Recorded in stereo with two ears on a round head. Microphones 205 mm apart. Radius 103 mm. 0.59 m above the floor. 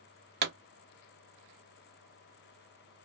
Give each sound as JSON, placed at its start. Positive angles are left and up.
{"t": 0.4, "sound": "a pop", "side_deg": -45, "distance_m": 0.7}